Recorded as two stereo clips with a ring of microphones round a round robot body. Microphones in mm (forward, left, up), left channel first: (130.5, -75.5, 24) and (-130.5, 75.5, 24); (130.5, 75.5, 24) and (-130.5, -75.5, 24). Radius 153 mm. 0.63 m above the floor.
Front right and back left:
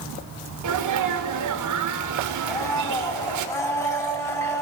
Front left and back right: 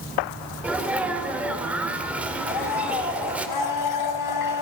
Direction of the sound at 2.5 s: 50° left.